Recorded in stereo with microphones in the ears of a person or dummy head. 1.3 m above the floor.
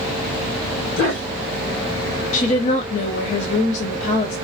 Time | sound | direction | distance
1.0 | a dog barking | 60° left (ahead or behind) | 1.6 m
2.3 | a woman speaking | 45° left (ahead or behind) | 0.6 m